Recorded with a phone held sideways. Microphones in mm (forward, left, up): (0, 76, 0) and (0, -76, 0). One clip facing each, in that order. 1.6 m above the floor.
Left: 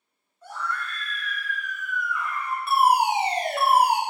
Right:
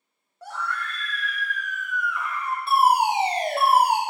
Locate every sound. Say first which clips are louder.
0.4 s a scream: right 1 dB; 70° right (ahead or behind), 0.8 m
2.7 s a fire alarm: right 1 dB; 30° right (ahead or behind), 0.9 m